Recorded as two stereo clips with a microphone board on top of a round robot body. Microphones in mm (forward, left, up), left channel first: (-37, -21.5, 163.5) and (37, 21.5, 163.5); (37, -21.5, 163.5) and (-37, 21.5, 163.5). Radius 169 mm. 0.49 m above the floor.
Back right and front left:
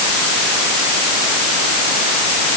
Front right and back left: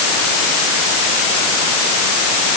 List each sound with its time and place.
Only background noise.